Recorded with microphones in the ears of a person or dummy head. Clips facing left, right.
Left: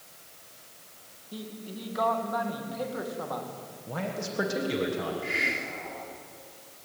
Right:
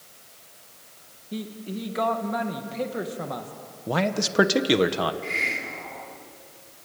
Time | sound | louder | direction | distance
1.3 | a man speaking | right 7 dB | 30° right (ahead or behind) | 2 m
3.9 | a man speaking | right 9 dB | 85° right | 1.5 m
5.2 | a hiss | even | 15° left (ahead or behind) | 2 m